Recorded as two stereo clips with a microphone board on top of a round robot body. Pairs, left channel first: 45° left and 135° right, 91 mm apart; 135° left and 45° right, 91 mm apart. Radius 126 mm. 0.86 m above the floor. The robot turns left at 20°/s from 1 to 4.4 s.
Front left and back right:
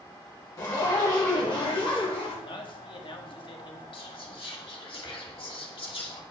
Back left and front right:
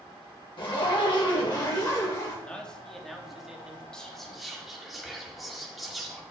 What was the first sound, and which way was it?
A zipper, 100° left.